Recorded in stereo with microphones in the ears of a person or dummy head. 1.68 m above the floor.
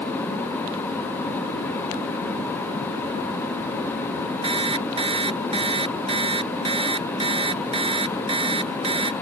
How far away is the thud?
I don't hear a thud.